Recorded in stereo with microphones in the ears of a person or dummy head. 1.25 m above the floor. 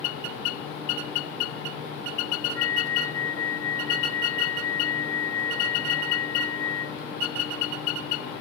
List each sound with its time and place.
2.5 s a flute: 15° left (ahead or behind)